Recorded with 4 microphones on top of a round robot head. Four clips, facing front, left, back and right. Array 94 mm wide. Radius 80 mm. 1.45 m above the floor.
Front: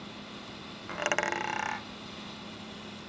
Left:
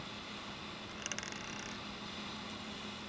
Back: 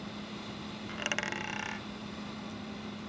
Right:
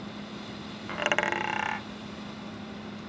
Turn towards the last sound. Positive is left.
turn(degrees=-55)